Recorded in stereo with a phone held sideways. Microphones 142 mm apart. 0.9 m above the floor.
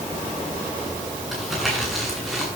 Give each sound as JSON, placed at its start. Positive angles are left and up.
{"t": 1.3, "sound": "crumpling", "side_deg": 0, "distance_m": 8.0}